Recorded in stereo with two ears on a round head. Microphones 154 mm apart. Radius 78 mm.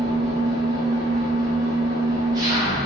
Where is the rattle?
No rattle in this recording.